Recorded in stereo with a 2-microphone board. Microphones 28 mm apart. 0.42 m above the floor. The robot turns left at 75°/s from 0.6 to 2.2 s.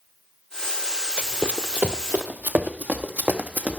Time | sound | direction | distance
1.2 | running footsteps | 50° right (ahead or behind) | 0.8 m